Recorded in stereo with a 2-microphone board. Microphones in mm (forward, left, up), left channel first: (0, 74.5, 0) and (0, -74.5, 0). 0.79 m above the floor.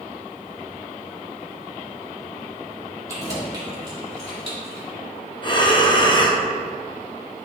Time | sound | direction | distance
3.1 | keys jangling | 25° right (ahead or behind) | 2 m
5.4 | breathing | 30° left (ahead or behind) | 0.6 m